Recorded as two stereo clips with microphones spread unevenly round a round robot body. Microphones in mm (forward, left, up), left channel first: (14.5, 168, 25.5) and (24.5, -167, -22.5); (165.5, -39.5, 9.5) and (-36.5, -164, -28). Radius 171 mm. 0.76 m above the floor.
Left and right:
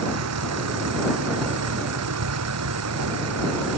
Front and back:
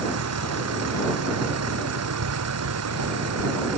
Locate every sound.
0.0 s a vehicle: 135° right